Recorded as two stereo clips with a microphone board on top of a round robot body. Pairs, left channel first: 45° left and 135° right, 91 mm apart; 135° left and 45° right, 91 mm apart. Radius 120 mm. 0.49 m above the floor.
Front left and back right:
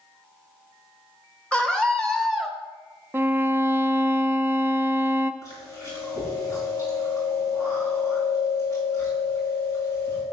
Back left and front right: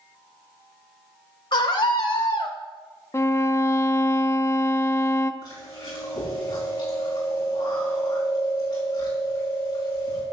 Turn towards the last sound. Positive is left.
turn(degrees=95)